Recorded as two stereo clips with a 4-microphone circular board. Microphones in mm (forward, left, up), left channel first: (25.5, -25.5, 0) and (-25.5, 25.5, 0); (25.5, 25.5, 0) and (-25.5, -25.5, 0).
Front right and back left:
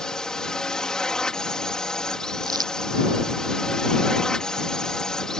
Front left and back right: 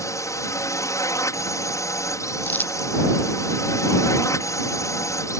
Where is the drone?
35° left.